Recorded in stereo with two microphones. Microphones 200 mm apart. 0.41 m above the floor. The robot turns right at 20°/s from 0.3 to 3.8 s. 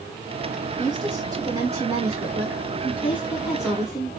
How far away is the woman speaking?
About 1.4 m.